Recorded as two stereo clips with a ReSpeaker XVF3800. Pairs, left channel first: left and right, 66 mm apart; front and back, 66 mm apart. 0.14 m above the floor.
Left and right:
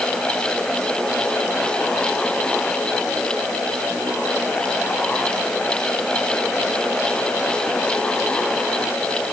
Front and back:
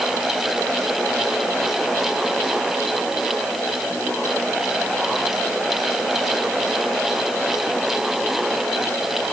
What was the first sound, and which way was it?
Only background noise.